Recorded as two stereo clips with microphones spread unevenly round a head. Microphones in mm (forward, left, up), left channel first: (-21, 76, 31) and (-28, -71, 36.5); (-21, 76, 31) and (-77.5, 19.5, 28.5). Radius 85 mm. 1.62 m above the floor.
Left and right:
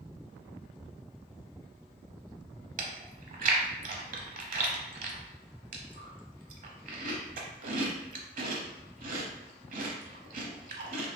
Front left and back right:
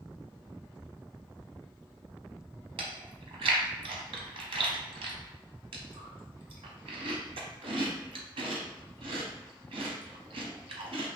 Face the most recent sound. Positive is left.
turn(degrees=-125)